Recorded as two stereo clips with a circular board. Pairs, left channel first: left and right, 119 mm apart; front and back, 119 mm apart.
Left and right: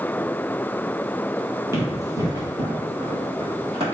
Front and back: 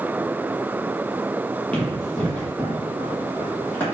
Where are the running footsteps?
65° right, 1.8 m; by 3.8 s 75° right, 2.5 m.